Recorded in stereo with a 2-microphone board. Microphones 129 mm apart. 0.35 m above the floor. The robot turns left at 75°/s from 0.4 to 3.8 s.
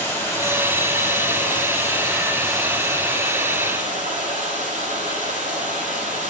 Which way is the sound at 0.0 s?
160° left.